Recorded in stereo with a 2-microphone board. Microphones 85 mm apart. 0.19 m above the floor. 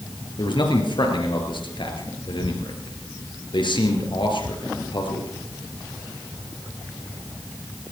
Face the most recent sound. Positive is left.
turn(degrees=65)  # may be behind; listen again after turning